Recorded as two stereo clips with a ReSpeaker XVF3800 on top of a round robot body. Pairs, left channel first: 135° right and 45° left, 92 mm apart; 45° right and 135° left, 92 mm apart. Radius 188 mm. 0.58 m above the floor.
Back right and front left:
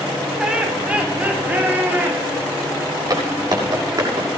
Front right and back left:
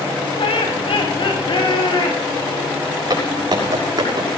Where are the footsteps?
95° left, 7.5 m.